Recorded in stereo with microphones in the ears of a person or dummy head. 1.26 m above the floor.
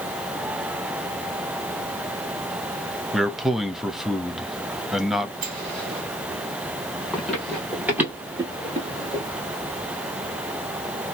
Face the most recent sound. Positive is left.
turn(degrees=-25)  # may be behind; listen again after turning